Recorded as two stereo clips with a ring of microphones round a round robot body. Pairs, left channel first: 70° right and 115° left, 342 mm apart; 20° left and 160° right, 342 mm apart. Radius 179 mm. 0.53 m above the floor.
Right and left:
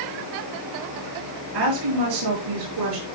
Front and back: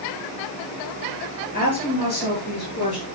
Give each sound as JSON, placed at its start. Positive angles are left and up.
{"t": 1.5, "sound": "a woman speaking", "azimuth_deg": 90, "distance_m": 9.0}